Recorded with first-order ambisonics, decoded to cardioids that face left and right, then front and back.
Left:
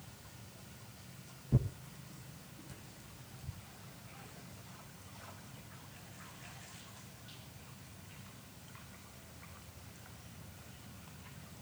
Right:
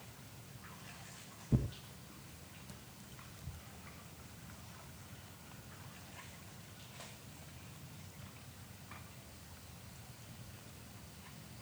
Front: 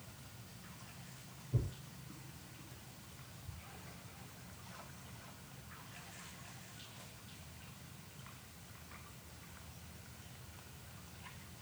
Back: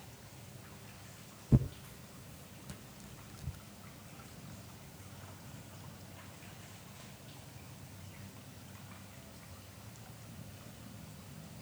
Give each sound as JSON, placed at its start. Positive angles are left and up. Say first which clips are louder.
{"t": 1.5, "sound": "tearing paper", "louder": "left 1 dB, back 11 dB", "azimuth_deg": -170, "distance_m": 1.7}